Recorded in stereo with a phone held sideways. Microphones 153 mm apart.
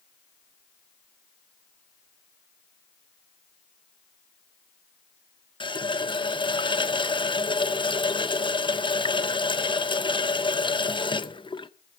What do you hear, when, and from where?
5.6 s a running tap: 30° left (ahead or behind), 0.7 m